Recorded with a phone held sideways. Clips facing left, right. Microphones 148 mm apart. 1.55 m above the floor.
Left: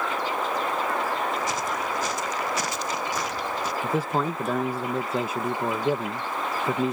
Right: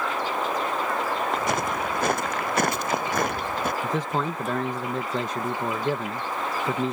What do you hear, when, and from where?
1.3 s footsteps: 60° right (ahead or behind)
3.8 s a man speaking: 10° left (ahead or behind)